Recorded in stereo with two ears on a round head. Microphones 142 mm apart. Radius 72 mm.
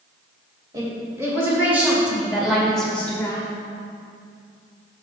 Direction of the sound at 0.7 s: 20° right (ahead or behind).